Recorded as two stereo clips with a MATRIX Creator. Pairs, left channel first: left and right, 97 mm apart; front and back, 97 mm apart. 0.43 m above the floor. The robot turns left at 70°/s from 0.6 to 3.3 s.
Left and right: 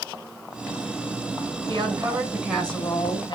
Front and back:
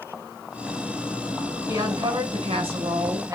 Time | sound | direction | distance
1.7 | a woman speaking | 120° right | 5 m